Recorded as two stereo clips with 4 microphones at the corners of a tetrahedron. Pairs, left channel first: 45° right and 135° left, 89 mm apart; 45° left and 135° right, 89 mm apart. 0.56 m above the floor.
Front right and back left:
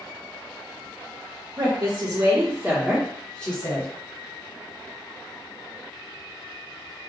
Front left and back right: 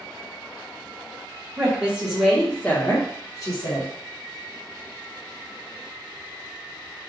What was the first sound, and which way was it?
A woman speaking, 155° left.